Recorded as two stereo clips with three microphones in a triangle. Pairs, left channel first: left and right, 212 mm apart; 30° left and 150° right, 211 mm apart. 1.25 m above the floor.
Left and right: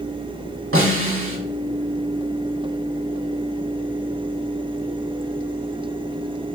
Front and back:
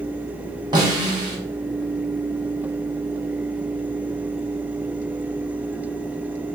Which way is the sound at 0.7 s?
80° right.